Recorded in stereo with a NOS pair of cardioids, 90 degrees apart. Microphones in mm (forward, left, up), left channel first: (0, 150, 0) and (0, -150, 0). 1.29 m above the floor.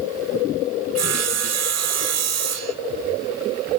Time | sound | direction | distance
0.9 | sawing | 60° right | 1.1 m